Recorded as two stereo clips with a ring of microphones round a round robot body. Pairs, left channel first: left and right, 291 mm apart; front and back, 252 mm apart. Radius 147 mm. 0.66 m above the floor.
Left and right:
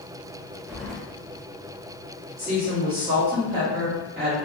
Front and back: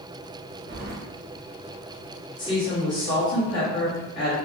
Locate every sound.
0.7 s keys jangling: 175° right, 0.6 m
2.4 s a woman speaking: 25° right, 1.3 m